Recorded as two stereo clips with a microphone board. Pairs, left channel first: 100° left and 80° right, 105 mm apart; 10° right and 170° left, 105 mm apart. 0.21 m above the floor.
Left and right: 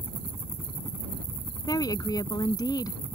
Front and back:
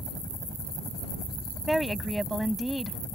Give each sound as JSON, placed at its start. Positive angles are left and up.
{"t": 0.0, "sound": "a helicopter", "azimuth_deg": -25}
{"t": 1.7, "sound": "a woman speaking", "azimuth_deg": 80}